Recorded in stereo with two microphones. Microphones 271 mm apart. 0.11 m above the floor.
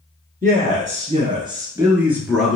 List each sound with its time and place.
0.4 s a man speaking: 35° right (ahead or behind), 1.4 m; by 2.6 s centre (ahead or behind), 1.4 m